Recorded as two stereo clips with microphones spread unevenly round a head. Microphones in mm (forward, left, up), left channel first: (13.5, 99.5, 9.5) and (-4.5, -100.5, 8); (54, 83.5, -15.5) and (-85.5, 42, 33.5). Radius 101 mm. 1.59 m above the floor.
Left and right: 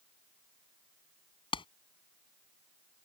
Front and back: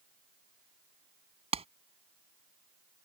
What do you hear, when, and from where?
1.5 s a clap: 150° left